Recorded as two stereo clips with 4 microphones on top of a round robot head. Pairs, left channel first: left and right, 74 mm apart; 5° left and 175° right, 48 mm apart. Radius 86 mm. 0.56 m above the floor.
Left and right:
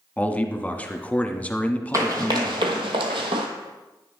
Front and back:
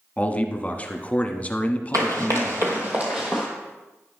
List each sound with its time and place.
0.2 s a man speaking: 35° left, 1.2 m
1.9 s running footsteps: 145° right, 0.9 m; by 3.5 s 90° right, 1.0 m